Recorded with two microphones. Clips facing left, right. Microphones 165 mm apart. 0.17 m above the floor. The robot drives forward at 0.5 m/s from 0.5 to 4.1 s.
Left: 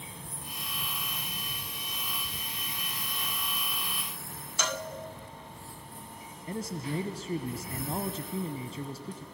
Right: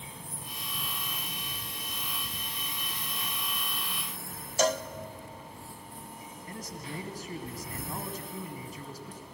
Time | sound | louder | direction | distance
4.6 | a cowbell | right 8 dB | 40° right (ahead or behind) | 0.8 m
6.5 | a man speaking | left 7 dB | 30° left (ahead or behind) | 1.1 m